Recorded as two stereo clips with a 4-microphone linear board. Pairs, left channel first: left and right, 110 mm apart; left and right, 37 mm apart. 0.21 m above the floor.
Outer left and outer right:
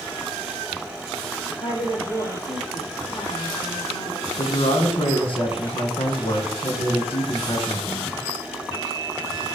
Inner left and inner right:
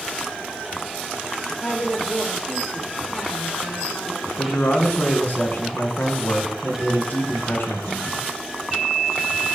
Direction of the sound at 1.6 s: 55° left (ahead or behind).